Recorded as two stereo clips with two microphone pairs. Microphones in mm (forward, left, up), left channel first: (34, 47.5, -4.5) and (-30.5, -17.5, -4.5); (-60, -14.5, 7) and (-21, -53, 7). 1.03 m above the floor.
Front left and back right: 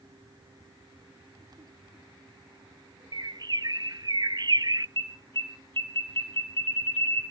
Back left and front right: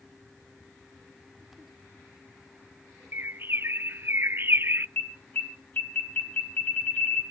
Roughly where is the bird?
Right.